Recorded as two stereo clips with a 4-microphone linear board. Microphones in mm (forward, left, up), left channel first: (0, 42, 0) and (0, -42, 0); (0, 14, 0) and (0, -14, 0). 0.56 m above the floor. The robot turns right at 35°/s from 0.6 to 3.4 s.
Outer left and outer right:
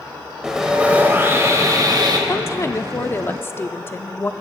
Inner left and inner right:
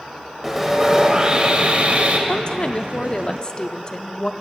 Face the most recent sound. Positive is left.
turn(degrees=120)